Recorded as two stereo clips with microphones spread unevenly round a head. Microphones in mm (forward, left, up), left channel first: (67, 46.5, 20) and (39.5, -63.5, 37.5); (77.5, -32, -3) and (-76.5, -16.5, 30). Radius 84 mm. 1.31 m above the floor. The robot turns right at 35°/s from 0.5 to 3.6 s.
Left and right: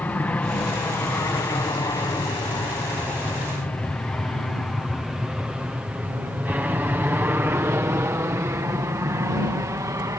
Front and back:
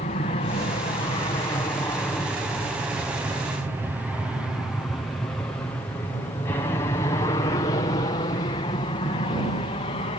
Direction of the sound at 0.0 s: 10° left.